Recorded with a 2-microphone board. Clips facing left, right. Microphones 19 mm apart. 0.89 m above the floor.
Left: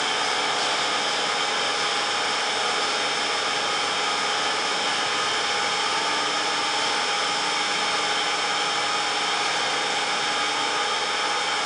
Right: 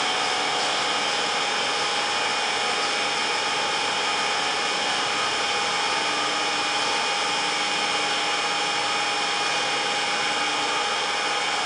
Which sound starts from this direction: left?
An engine running, at 0.0 s.